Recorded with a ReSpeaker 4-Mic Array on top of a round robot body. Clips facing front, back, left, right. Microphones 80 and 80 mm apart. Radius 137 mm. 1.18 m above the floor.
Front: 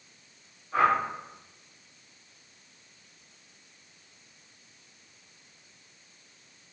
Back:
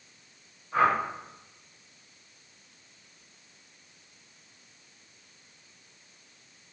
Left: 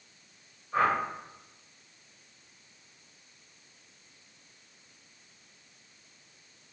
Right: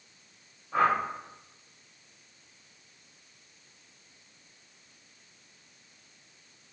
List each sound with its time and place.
0.7 s a whoosh: 100° right, 0.7 m